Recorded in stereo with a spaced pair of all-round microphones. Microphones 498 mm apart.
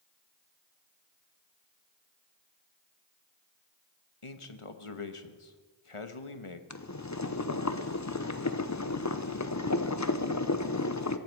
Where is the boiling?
35° left (ahead or behind), 0.8 m.